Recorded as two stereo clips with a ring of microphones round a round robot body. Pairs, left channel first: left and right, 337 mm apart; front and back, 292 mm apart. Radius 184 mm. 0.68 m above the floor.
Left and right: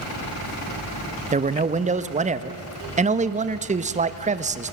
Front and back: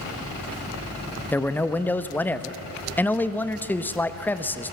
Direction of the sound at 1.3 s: 75° right.